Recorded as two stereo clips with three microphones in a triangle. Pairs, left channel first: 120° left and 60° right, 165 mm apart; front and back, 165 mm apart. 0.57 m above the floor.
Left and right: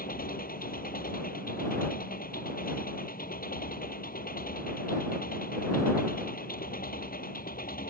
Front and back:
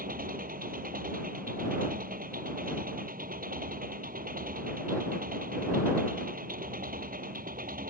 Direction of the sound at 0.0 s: 150° left.